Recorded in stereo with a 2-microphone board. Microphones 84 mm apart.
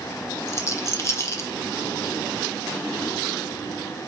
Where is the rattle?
35° left (ahead or behind), 0.6 m.